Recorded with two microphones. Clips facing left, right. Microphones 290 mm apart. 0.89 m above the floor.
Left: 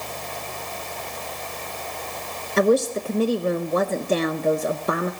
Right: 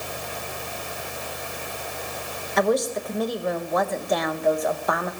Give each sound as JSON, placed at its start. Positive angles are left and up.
{"t": 2.6, "sound": "a woman speaking", "side_deg": 35, "distance_m": 0.6}